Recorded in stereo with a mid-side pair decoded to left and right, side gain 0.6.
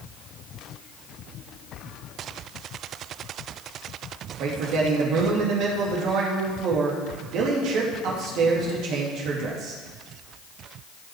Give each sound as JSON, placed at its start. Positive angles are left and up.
{"t": 4.4, "sound": "a man speaking", "azimuth_deg": -65, "distance_m": 2.5}